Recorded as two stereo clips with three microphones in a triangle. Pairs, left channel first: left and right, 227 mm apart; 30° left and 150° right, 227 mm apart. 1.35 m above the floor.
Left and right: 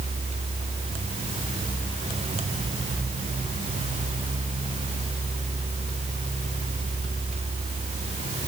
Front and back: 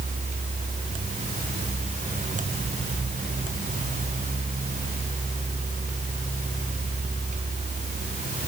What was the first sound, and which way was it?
Only background noise.